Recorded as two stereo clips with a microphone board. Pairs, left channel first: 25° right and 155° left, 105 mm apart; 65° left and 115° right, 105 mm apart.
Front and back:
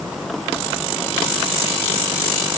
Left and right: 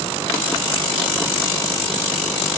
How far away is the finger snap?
I don't hear a finger snap.